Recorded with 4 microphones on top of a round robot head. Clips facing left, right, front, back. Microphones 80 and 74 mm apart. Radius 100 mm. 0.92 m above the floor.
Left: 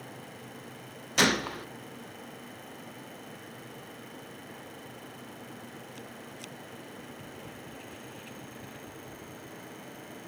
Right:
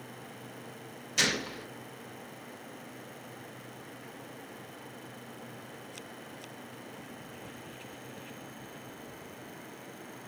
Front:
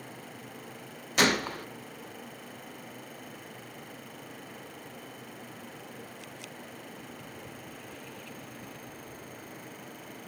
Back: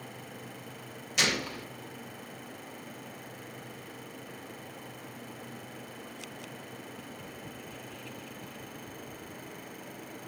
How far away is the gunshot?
About 0.5 m.